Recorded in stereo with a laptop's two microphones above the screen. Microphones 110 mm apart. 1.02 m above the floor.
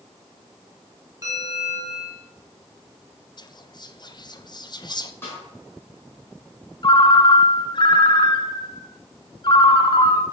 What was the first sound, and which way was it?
A bell, 30° right (ahead or behind).